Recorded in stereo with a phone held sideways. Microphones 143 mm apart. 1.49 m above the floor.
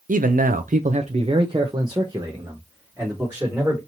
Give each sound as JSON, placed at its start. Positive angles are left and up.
{"t": 0.1, "sound": "a man speaking", "side_deg": -70, "distance_m": 0.5}